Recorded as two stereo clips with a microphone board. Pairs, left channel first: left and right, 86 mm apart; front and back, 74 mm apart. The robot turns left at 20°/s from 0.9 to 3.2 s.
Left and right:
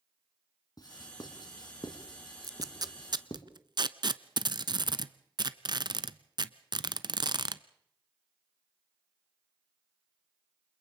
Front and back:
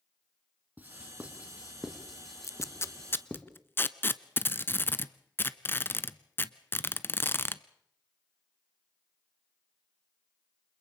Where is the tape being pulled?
45° right, 0.7 m; by 7.6 s 60° right, 0.7 m.